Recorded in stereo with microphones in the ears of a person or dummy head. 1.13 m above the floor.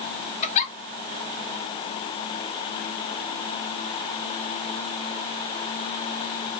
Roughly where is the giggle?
Left.